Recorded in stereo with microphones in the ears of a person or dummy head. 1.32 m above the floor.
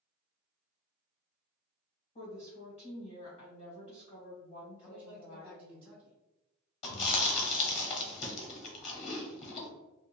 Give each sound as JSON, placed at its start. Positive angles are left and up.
{"t": 2.1, "sound": "a woman speaking", "side_deg": 45, "distance_m": 1.6}
{"t": 4.8, "sound": "a man speaking", "side_deg": -20, "distance_m": 0.9}
{"t": 6.8, "sound": "chewing", "side_deg": 40, "distance_m": 1.0}